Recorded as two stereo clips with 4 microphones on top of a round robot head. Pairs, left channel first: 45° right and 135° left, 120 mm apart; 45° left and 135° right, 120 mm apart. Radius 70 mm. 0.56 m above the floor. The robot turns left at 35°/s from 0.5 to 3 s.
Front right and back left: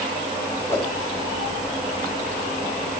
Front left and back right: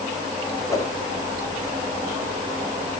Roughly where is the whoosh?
Ahead.